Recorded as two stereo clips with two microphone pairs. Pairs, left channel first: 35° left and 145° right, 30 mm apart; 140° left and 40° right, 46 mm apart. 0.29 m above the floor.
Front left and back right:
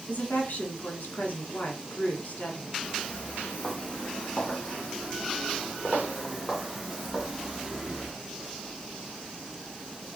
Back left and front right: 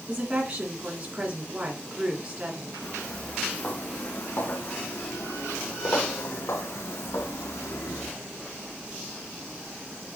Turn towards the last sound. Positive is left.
turn(degrees=140)